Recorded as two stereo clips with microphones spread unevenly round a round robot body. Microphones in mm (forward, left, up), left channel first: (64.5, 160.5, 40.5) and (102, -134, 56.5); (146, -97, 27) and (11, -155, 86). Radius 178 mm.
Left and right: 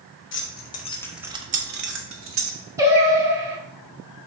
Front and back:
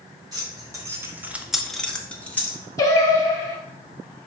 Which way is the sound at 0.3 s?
125° left.